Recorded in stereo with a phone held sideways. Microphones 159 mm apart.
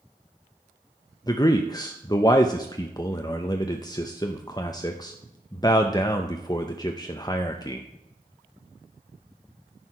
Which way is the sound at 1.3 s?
25° left (ahead or behind).